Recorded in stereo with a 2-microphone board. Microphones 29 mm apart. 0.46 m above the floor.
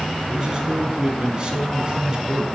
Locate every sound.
0.3 s a man speaking: 25° right (ahead or behind), 4.5 m